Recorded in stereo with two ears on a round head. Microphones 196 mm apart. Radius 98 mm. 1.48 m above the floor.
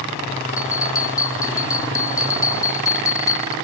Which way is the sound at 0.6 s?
15° left (ahead or behind).